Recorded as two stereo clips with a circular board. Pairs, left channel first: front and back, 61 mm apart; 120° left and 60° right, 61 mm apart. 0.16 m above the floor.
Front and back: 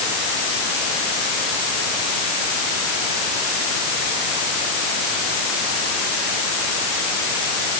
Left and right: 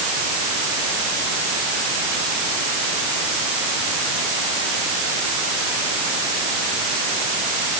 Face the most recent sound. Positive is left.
No sound to turn to.